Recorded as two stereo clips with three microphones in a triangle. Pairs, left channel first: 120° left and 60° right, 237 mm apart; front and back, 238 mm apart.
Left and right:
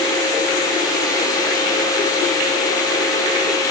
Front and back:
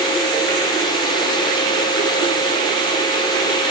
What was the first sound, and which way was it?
Only background noise.